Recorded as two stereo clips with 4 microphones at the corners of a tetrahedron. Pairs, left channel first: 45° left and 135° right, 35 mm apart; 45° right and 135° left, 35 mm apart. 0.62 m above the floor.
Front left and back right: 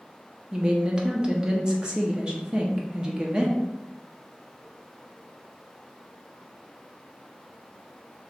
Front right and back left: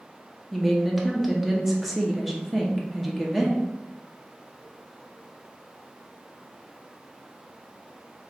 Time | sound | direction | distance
0.5 | a woman speaking | 145° right | 0.6 m